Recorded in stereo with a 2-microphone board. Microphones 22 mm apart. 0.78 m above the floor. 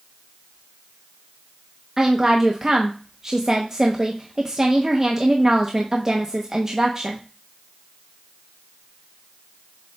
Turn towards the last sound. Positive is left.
turn(degrees=-25)  # may be behind; listen again after turning